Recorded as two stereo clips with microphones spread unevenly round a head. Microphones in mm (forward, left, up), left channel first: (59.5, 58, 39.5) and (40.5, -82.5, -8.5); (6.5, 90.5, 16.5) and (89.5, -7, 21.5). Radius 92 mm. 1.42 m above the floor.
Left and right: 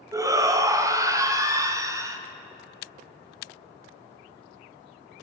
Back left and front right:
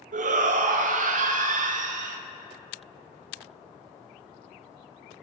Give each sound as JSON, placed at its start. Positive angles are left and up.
{"t": 0.1, "sound": "a shout", "azimuth_deg": -40, "distance_m": 0.6}